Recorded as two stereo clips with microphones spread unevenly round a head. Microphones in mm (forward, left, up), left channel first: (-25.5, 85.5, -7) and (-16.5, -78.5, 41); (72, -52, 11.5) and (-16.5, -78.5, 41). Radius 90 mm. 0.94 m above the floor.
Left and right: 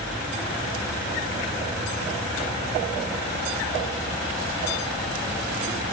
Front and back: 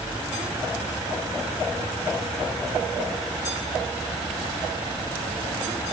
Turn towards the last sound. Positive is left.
No sound to turn to.